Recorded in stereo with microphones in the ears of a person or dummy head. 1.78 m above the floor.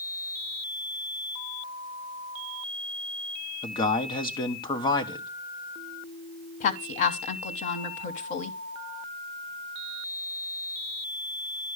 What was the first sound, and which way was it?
A man speaking, 25° left (ahead or behind).